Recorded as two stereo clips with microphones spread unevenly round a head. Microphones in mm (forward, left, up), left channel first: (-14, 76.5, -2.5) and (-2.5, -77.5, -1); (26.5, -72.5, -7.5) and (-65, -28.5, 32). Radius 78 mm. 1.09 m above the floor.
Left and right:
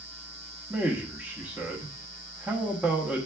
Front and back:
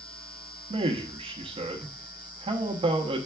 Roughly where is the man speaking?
Behind.